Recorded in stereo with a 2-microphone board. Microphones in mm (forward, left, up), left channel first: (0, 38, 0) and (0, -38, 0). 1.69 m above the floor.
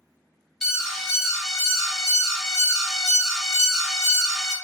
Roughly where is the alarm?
Centre.